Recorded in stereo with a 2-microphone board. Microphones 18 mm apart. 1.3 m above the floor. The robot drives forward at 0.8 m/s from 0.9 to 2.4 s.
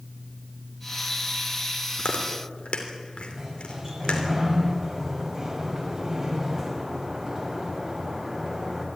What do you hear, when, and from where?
2.0 s chewing: 80° left, 3 m; by 4.3 s 75° left (ahead or behind), 3 m
3.3 s a sliding door: 30° right (ahead or behind), 5.5 m